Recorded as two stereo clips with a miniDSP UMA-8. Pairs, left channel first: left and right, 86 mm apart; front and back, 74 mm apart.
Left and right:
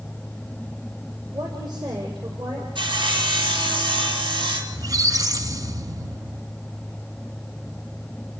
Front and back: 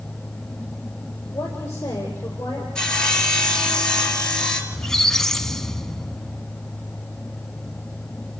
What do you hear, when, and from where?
1.3 s a woman speaking: 60° right, 5.5 m
2.8 s sawing: 80° right, 3.5 m
4.7 s a squeak: 80° right, 0.9 m